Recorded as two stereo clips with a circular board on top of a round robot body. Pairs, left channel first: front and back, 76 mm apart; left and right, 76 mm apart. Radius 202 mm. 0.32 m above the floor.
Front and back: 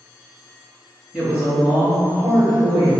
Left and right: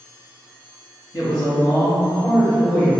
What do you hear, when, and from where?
1.1 s a woman speaking: 110° left, 1.9 m; by 2.9 s 170° left, 1.4 m